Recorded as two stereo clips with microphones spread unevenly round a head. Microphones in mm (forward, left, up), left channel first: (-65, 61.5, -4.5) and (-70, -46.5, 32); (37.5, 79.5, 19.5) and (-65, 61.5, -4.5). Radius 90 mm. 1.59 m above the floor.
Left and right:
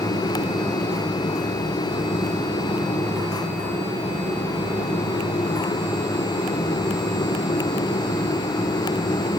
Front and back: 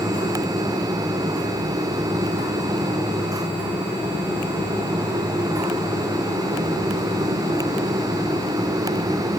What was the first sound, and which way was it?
Only background noise.